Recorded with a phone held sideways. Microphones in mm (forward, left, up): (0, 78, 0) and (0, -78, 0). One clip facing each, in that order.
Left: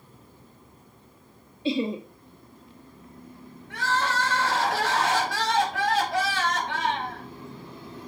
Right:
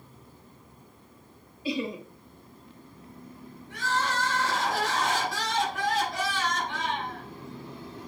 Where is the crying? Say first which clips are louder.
Left 2 dB; 70° left (ahead or behind), 6.5 m.